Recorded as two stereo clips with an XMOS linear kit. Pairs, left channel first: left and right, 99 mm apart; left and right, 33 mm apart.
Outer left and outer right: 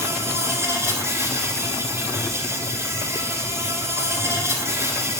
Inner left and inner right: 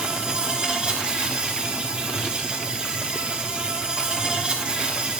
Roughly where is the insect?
Right.